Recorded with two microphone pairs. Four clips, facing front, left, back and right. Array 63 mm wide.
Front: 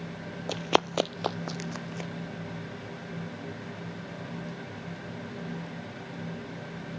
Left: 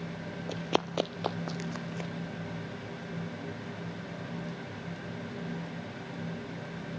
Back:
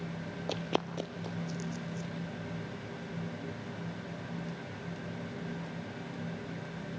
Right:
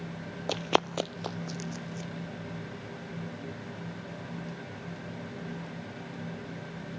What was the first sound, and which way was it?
Running footsteps, 75° right.